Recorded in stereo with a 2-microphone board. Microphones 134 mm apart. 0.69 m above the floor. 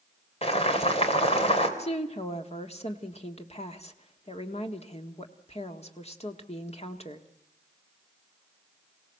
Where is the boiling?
50° left (ahead or behind), 3 m.